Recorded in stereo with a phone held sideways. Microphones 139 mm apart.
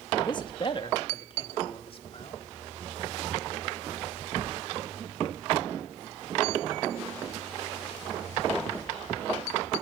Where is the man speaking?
35° left (ahead or behind), 1.2 m; by 2.4 s 45° left (ahead or behind), 2.5 m.